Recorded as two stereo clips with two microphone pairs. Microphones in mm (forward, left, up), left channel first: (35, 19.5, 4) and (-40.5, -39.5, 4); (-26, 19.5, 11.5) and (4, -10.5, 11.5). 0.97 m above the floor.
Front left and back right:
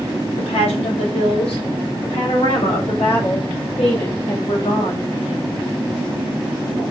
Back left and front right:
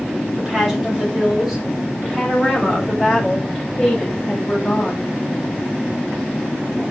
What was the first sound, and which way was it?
A woman speaking, 35° left.